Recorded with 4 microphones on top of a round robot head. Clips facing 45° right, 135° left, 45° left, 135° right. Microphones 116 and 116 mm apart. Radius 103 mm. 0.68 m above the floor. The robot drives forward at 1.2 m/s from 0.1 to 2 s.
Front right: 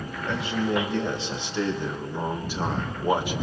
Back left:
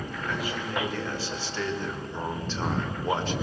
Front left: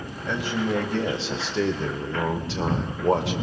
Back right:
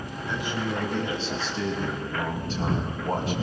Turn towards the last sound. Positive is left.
turn(degrees=35)